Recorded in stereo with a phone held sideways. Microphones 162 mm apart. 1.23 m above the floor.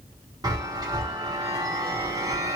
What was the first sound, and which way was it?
A chime, 25° right (ahead or behind).